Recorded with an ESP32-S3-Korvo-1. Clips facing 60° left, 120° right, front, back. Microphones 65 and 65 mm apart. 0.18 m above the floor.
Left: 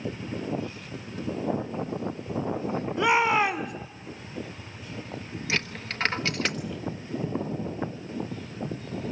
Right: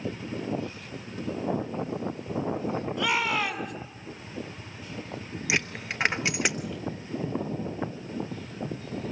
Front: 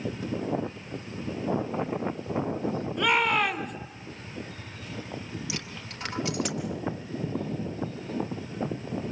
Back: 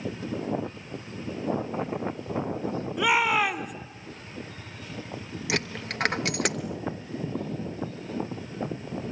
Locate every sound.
3.0 s a shout: 100° left, 1.4 m
5.5 s a dropped coin: 165° left, 1.0 m